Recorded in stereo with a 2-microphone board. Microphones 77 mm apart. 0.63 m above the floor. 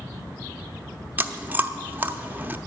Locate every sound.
1.2 s chewing: 25° right (ahead or behind), 0.6 m